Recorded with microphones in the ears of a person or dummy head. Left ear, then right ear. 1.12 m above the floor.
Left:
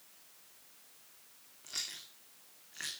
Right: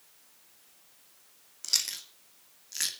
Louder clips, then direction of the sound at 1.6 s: Right 11 dB; 75° right (ahead or behind).